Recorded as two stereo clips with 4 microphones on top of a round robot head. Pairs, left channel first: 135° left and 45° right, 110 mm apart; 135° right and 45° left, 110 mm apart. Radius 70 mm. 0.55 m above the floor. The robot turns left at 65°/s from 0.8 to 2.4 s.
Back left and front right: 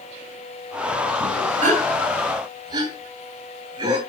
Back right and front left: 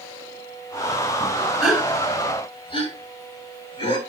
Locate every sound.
1.6 s a gasp: 45° right, 2.5 m; by 4.0 s 95° right, 2.5 m